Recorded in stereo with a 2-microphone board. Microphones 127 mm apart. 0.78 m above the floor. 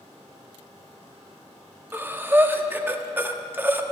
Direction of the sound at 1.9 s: 15° right (ahead or behind).